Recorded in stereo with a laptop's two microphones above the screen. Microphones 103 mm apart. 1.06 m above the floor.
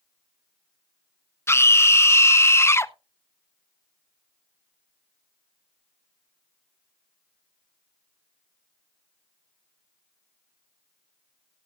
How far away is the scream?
About 0.7 m.